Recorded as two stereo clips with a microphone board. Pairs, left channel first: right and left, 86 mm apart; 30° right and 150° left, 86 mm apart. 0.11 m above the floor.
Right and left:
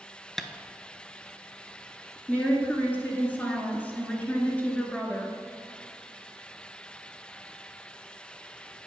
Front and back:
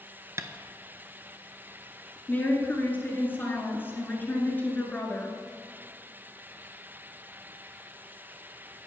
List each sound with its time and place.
0.4 s tapping: 175° right, 0.6 m
2.3 s a woman speaking: 55° right, 1.7 m